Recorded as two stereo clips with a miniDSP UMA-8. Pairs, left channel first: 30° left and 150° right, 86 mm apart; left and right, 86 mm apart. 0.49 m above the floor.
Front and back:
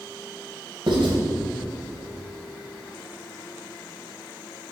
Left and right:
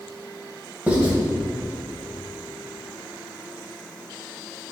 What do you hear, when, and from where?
0.9 s writing: 160° right, 3 m